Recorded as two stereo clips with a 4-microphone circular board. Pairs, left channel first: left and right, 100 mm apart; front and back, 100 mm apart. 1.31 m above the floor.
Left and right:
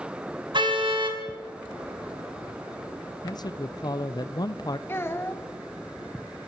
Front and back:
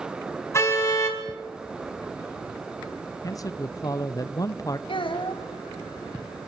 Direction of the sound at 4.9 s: 25° left.